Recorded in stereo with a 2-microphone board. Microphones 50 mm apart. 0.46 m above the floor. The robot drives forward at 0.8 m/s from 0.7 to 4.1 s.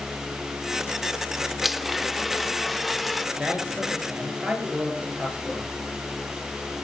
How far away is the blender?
About 0.9 m.